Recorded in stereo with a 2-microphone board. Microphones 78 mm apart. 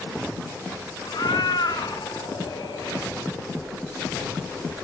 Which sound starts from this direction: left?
A cat meowing, at 1.1 s.